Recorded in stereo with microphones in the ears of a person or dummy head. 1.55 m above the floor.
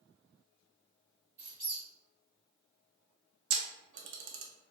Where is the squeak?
15° right (ahead or behind), 1.1 m.